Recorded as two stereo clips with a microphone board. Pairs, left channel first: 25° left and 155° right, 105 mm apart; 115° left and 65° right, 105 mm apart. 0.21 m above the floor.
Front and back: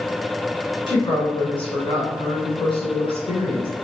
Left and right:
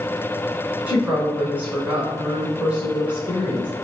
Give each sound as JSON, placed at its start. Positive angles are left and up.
{"t": 0.9, "sound": "a woman speaking", "azimuth_deg": 5, "distance_m": 1.7}